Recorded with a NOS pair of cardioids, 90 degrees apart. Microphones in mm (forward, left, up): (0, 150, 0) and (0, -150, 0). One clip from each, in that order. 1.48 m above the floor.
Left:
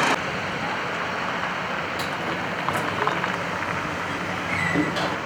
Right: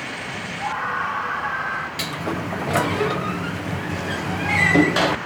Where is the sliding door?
40° right.